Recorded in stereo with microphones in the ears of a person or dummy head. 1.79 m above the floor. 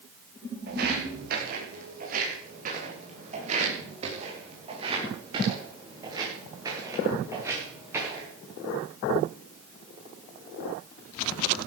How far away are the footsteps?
About 6 m.